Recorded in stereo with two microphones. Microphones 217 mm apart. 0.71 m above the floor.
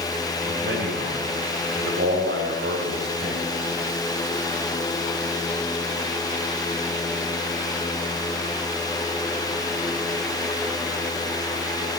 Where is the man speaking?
65° right (ahead or behind), 3.5 m.